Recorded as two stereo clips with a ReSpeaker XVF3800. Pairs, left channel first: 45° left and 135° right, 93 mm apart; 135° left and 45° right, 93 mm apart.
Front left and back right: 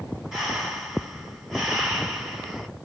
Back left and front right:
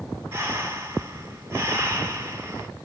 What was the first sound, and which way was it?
Breathing, 60° right.